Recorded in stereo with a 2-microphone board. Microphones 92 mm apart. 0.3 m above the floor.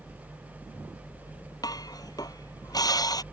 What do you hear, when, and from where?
0.0 s a helicopter: 60° left (ahead or behind); by 3.3 s 35° left (ahead or behind)
1.6 s dishes clattering: 45° left (ahead or behind)